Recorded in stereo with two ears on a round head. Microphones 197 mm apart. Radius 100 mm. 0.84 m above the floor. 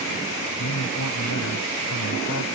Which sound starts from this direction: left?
A man speaking, at 0.6 s.